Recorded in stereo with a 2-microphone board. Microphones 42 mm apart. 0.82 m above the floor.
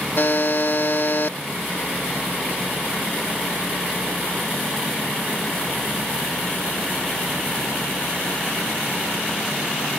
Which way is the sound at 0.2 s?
60° left (ahead or behind).